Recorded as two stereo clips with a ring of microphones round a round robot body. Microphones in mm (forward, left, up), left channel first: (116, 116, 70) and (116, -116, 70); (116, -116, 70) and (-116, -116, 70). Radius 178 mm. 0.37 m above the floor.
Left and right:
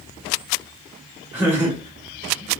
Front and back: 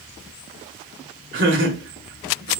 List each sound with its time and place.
1.3 s laughter: 170° right, 1.3 m